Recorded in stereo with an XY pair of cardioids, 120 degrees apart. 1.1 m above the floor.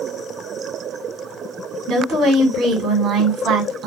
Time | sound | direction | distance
1.9 | a woman speaking | 65° right | 1.7 m